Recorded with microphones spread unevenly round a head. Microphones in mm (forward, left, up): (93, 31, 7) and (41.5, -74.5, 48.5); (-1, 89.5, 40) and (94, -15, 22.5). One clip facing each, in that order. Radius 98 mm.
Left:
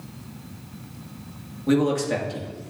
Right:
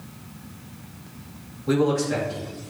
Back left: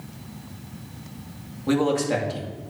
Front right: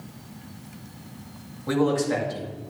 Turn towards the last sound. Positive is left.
turn(degrees=60)